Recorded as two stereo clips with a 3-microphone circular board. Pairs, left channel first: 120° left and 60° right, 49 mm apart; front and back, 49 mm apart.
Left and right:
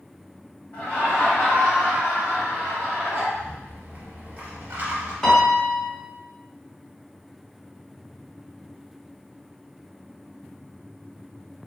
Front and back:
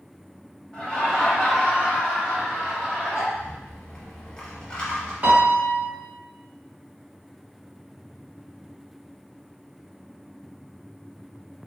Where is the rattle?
60° right, 1.0 m.